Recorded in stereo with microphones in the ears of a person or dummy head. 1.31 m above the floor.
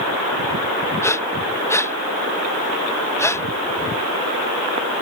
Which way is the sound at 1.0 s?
10° left (ahead or behind).